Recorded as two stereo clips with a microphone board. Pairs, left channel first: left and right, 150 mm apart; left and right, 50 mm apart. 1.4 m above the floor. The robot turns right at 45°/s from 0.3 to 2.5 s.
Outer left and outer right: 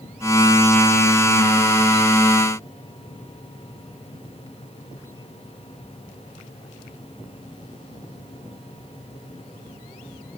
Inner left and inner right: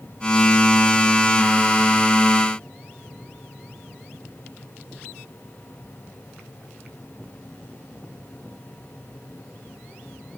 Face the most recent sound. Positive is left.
No sound to turn to.